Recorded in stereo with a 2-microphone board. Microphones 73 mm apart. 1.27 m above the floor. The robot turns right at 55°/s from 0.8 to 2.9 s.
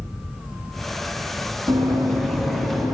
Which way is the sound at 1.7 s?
55° right (ahead or behind).